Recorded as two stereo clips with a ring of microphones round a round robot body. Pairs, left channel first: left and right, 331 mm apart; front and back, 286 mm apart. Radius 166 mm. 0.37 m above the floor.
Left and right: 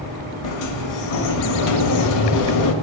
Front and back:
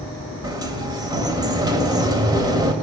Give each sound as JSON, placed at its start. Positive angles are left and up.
{"t": 0.4, "sound": "a sliding door", "azimuth_deg": 105, "distance_m": 1.9}